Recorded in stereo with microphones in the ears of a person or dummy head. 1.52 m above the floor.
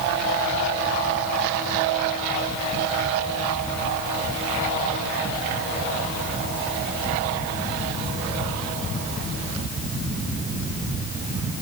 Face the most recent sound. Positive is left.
No sound to turn to.